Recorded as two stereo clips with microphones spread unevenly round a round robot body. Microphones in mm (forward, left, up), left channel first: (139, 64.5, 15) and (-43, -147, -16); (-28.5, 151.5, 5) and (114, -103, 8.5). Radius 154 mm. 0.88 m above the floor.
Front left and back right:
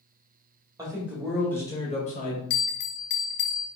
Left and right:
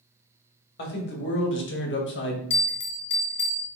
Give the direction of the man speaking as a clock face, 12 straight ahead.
7 o'clock.